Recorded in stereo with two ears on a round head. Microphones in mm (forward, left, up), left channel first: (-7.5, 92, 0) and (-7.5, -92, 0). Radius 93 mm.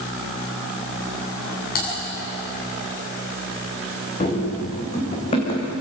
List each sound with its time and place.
1.8 s typing on a keyboard: 50° left (ahead or behind), 7.5 m
4.2 s running footsteps: 35° left (ahead or behind), 5.5 m; by 5.7 s 25° left (ahead or behind), 5.5 m